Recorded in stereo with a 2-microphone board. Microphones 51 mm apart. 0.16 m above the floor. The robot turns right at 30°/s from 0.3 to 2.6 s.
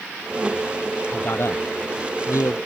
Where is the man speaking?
45° left (ahead or behind); by 2.6 s 75° left (ahead or behind).